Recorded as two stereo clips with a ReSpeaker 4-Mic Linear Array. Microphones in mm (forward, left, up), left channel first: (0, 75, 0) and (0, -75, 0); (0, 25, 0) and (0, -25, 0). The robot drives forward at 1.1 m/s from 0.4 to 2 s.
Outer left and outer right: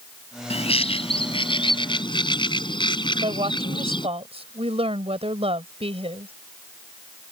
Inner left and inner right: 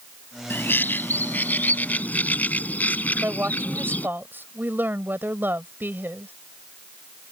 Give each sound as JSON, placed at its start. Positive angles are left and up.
{"t": 0.5, "sound": "a bird", "side_deg": 45}
{"t": 3.2, "sound": "a woman speaking", "side_deg": -40}